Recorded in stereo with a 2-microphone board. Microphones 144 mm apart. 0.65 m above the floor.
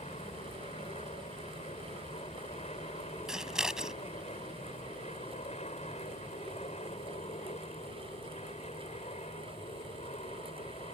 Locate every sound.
0.0 s an aircraft: 55° left (ahead or behind)
3.3 s scissors: 5° right (ahead or behind)